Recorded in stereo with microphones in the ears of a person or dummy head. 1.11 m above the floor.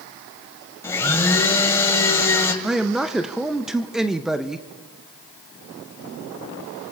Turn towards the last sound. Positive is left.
turn(degrees=0)  # may be behind; listen again after turning